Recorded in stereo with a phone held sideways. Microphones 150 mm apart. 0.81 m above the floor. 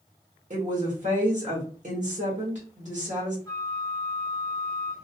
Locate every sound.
0.5 s a woman speaking: 55° right (ahead or behind), 1.1 m
3.5 s a flute: 20° left (ahead or behind), 0.5 m